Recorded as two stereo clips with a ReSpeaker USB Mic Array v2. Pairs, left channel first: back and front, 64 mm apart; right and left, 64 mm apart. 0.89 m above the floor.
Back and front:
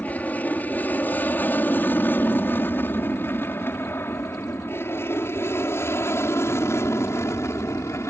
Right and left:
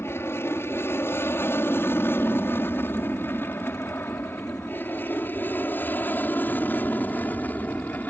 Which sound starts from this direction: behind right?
An aircraft, at 0.0 s.